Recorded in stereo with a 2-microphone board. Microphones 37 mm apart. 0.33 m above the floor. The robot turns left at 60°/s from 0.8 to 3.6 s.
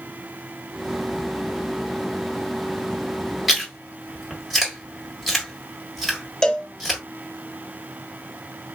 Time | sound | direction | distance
3.5 | chewing | 5° right (ahead or behind) | 1.6 m
6.4 | a cowbell | 15° left (ahead or behind) | 0.6 m